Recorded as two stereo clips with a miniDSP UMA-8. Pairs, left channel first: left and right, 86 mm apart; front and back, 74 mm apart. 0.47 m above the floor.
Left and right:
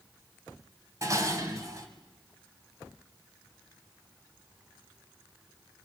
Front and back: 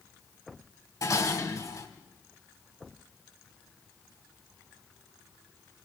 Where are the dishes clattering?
40° right, 2 m.